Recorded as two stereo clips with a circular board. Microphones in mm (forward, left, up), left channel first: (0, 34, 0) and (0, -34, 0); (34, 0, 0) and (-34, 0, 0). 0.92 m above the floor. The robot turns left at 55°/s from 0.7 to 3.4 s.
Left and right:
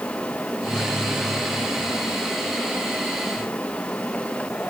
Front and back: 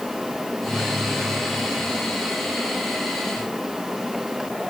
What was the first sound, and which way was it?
Only background noise.